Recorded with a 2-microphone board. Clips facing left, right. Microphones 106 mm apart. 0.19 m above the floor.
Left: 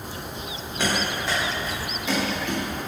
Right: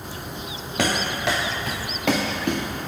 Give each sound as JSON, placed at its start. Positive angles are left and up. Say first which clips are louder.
{"t": 0.8, "sound": "running footsteps", "louder": "right 2 dB", "side_deg": -85, "distance_m": 1.9}